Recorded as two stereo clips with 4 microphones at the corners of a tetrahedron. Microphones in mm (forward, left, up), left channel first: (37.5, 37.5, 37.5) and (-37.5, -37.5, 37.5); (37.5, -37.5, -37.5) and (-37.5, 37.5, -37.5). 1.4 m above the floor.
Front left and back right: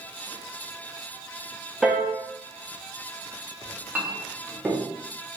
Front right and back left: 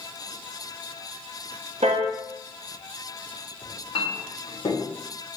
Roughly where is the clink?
Ahead right.